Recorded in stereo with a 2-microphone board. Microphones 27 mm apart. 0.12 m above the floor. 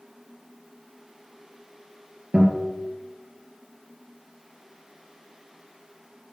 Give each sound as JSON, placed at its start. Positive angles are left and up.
{"t": 2.3, "sound": "a guitar", "side_deg": -40, "distance_m": 2.5}